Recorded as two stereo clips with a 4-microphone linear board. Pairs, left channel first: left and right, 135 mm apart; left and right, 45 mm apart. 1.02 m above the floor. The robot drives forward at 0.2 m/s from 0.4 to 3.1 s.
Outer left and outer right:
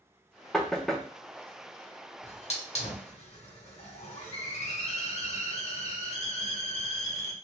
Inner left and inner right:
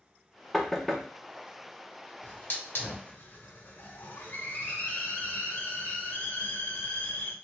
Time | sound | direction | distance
0.5 | knocking | 5° left (ahead or behind) | 0.6 m
2.2 | a hiss | 50° left (ahead or behind) | 0.8 m